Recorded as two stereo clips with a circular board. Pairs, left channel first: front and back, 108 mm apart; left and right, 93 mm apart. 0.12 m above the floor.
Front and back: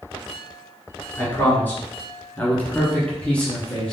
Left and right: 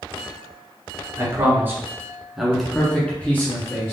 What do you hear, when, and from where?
1.2 s a man speaking: 60° right, 1.7 m; by 3.9 s 75° left, 1.6 m